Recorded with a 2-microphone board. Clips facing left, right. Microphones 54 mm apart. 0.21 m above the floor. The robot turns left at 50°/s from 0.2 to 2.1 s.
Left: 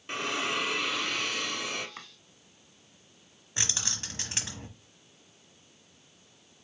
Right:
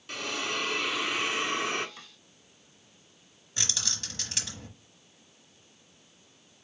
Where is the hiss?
30° left, 0.6 m; by 1.9 s 55° right, 0.6 m.